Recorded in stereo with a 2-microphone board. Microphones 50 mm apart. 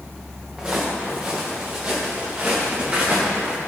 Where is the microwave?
I don't hear a microwave.